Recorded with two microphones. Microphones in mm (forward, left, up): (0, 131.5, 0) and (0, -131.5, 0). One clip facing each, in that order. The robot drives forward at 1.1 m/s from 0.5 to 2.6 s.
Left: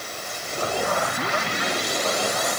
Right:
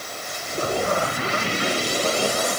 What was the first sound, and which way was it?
Only background noise.